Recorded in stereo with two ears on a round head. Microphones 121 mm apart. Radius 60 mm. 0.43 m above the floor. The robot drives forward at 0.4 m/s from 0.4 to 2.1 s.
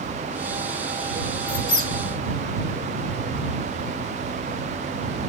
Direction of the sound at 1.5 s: 60° left (ahead or behind).